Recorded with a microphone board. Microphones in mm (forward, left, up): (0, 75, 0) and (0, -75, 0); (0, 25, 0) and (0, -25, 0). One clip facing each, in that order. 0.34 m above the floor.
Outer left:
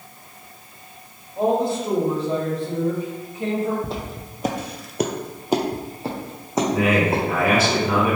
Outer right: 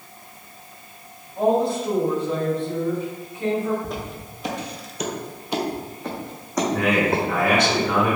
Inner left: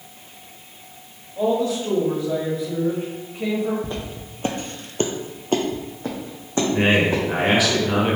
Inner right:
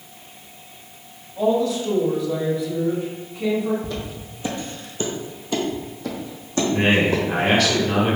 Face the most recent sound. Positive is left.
turn(degrees=5)  # may be behind; listen again after turning